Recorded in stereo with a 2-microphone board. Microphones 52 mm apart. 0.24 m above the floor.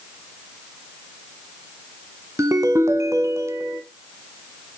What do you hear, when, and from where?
2.4 s a ringtone: 65° right (ahead or behind), 1.2 m